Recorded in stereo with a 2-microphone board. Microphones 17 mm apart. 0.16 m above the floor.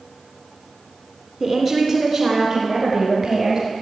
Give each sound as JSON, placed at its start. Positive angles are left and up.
{"t": 1.4, "sound": "a woman speaking", "side_deg": -30, "distance_m": 1.3}